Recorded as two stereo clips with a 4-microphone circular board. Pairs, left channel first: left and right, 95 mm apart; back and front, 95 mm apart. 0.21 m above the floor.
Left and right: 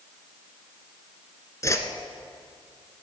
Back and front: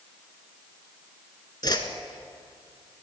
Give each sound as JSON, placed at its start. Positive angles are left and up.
{"t": 1.6, "sound": "a whoosh", "azimuth_deg": 145, "distance_m": 1.0}